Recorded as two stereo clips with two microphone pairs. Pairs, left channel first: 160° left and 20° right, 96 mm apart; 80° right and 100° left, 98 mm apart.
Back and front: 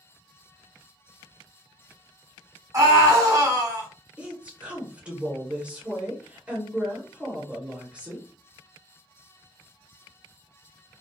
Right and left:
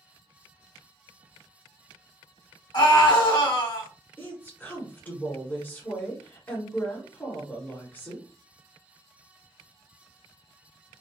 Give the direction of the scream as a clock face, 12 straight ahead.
2 o'clock.